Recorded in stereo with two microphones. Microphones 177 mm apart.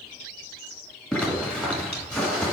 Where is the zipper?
5° left (ahead or behind), 1.8 m.